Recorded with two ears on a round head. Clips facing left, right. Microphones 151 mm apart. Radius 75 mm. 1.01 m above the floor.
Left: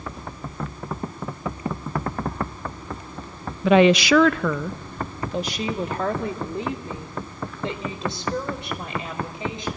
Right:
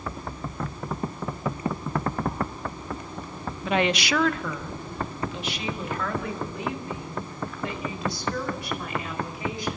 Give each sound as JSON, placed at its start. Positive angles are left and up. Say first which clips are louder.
{"t": 3.6, "sound": "a woman speaking", "louder": "left 9 dB", "side_deg": 55, "distance_m": 0.5}